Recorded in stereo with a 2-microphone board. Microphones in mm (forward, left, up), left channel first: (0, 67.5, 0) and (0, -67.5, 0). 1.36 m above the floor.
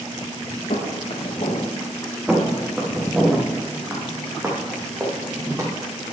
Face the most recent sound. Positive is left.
turn(degrees=-25)  # may be behind; listen again after turning